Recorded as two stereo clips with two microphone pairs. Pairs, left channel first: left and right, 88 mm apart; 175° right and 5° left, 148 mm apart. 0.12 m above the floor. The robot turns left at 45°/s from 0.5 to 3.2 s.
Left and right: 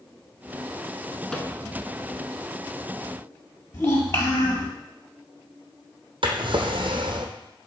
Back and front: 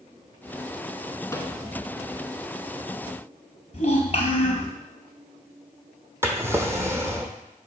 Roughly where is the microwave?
Behind.